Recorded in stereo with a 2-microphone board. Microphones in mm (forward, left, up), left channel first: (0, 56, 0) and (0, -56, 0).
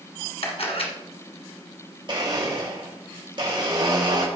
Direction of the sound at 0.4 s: 60° left (ahead or behind).